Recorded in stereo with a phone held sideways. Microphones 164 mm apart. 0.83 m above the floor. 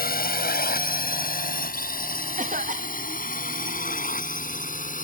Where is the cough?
50° right (ahead or behind).